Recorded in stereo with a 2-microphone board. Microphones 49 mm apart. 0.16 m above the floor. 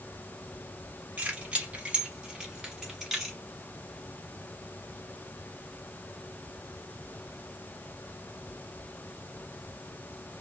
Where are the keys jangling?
25° right (ahead or behind), 1.2 m; by 3.4 s centre (ahead or behind), 1.3 m.